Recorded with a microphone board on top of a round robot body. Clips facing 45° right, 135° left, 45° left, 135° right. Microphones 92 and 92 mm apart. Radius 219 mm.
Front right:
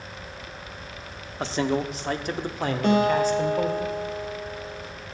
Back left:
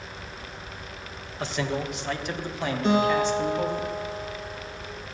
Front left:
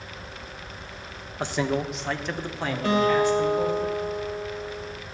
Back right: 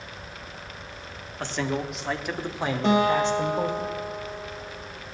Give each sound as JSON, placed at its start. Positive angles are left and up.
{"t": 1.4, "sound": "a man speaking", "azimuth_deg": -20, "distance_m": 1.6}
{"t": 2.8, "sound": "a guitar", "azimuth_deg": -70, "distance_m": 3.0}